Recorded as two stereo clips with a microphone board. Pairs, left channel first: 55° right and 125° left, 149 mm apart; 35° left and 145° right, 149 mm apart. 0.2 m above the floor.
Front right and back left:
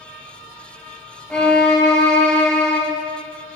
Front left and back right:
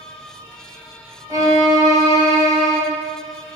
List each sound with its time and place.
1.3 s a violin: 135° right, 1.0 m